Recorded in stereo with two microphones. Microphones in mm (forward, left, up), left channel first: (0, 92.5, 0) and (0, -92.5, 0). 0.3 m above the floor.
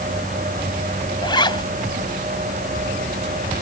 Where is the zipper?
25° left (ahead or behind).